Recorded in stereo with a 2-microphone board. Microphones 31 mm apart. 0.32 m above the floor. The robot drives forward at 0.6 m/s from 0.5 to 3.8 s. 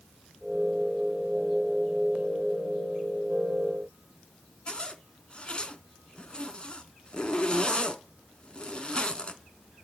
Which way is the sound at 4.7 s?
30° left (ahead or behind).